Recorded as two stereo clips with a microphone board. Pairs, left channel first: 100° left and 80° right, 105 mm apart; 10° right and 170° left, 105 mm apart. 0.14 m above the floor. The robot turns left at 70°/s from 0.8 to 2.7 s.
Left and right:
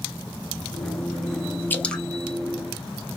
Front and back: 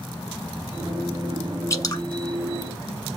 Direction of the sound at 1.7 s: 35° left.